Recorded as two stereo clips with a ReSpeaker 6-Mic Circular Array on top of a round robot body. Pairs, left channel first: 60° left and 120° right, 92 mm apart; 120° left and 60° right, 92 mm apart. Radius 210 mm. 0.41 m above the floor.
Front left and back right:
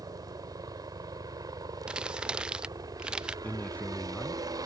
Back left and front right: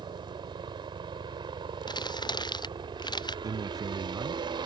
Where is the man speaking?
10° right.